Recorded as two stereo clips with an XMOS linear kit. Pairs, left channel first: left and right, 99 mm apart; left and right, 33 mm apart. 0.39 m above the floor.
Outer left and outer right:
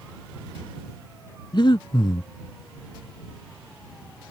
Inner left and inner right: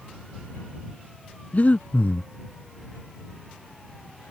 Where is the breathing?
55° left (ahead or behind).